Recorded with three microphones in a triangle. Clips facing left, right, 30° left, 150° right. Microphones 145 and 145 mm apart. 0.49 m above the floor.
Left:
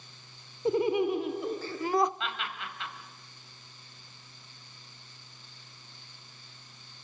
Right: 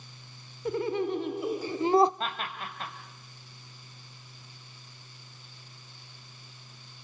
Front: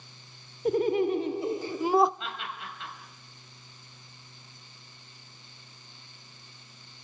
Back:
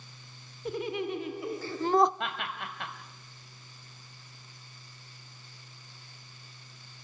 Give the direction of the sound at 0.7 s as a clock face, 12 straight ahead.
11 o'clock.